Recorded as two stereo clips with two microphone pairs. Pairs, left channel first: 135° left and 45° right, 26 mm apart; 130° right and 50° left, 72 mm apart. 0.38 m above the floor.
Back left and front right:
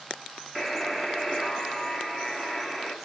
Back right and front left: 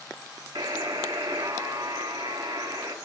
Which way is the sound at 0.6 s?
35° left.